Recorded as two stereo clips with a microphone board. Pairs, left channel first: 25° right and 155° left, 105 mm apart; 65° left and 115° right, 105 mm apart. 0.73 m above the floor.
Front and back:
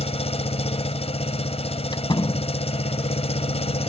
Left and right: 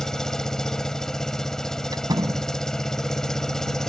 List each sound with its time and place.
0.0 s an engine running: 20° right
1.9 s a door slam: 65° right